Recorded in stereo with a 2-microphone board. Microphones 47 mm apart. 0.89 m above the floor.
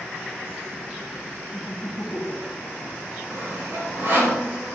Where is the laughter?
50° left (ahead or behind), 1.3 m; by 2.9 s 65° left (ahead or behind), 0.5 m.